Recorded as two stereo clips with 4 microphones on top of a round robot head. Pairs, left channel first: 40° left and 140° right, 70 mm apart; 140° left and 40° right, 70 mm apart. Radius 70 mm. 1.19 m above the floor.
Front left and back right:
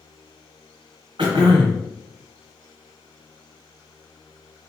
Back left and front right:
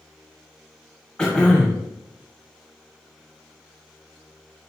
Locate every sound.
1.2 s throat clearing: 145° right, 1.2 m